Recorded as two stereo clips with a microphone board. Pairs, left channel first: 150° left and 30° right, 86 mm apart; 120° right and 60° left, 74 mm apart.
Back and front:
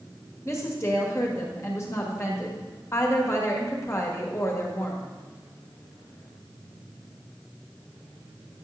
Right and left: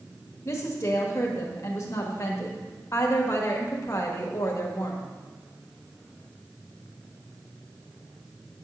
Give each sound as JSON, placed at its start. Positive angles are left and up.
{"t": 0.5, "sound": "a woman speaking", "azimuth_deg": -160, "distance_m": 1.5}